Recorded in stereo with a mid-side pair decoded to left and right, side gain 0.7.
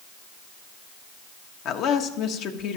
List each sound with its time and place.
1.6 s a woman speaking: 55° left, 1.3 m